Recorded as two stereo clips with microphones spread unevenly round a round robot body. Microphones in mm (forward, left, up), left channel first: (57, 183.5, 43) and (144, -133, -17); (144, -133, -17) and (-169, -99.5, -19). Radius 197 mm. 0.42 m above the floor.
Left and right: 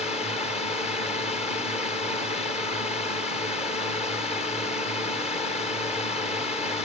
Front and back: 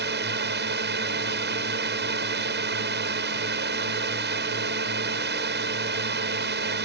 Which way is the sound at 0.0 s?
Straight behind.